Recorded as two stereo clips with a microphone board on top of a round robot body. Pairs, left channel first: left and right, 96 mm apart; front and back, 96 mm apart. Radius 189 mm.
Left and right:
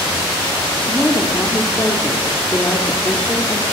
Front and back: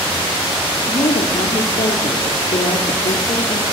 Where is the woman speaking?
20° left, 3 m.